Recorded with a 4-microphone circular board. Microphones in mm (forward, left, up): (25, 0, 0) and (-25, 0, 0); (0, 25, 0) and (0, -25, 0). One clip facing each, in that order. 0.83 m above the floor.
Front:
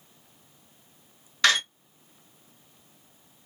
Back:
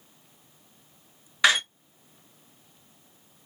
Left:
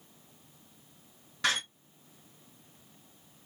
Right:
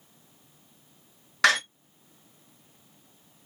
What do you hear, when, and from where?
1.4 s a door slam: 105° right, 0.6 m